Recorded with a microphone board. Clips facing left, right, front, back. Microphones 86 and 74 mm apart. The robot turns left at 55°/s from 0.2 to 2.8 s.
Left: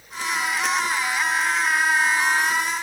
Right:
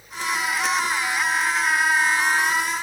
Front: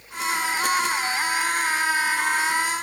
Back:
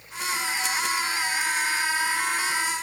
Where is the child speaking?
I don't hear a child speaking.